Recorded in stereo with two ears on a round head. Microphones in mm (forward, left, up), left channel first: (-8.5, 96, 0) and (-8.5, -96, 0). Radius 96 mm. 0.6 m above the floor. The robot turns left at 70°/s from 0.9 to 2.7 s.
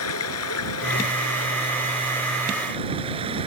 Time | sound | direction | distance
0.0 | running water | 100° left | ?